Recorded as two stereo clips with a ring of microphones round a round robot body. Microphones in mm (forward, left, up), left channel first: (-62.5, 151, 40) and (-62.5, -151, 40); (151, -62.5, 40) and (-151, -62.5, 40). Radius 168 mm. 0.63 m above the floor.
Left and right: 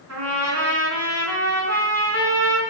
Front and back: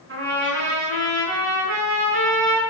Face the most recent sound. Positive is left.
turn(degrees=-130)